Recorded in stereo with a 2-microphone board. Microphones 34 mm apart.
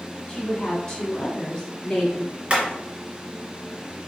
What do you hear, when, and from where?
0.3 s a woman speaking: 25° left (ahead or behind), 1.9 m; by 2.3 s 30° left (ahead or behind), 1.9 m
2.5 s hammering: 35° right (ahead or behind), 1.8 m